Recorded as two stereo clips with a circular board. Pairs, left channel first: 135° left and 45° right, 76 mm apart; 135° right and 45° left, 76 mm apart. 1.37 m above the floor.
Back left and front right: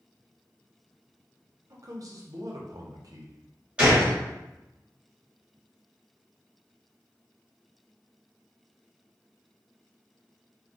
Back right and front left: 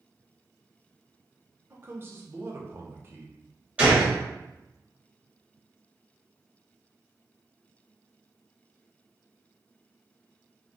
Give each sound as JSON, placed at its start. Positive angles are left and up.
{"t": 1.7, "sound": "a man speaking", "azimuth_deg": -10, "distance_m": 0.6}
{"t": 3.8, "sound": "a gunshot", "azimuth_deg": 0, "distance_m": 1.2}